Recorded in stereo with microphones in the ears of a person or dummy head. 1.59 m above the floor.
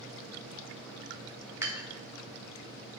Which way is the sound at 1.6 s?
20° right (ahead or behind).